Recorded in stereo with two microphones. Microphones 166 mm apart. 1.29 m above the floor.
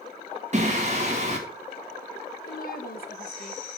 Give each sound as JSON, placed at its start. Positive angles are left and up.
{"t": 0.5, "sound": "singing", "side_deg": -45, "distance_m": 2.5}
{"t": 2.5, "sound": "a woman speaking", "side_deg": 65, "distance_m": 1.5}